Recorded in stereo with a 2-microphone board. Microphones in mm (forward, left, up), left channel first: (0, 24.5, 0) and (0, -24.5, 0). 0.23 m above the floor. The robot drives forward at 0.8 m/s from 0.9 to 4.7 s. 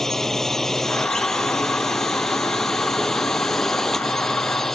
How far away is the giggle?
I don't hear a giggle.